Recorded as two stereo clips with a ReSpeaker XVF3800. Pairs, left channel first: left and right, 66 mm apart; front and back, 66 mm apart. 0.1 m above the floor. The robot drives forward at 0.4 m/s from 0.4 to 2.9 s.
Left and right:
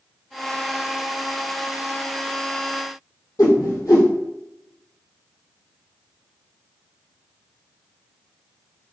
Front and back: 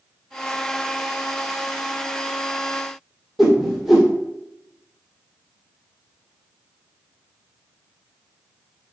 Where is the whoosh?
90° left, 1.6 m.